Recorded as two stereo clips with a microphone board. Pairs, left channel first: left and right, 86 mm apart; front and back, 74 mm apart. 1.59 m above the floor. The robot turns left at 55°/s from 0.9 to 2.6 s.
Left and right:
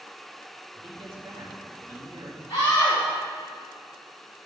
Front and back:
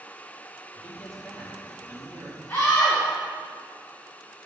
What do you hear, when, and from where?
0.7 s a man speaking: 70° right, 2.5 m; by 2.4 s 155° right, 2.5 m
2.5 s a scream: 70° left, 2.5 m; by 3.0 s 65° left, 2.5 m